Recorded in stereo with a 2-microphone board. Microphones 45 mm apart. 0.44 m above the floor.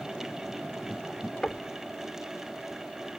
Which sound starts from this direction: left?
Knocking, at 1.4 s.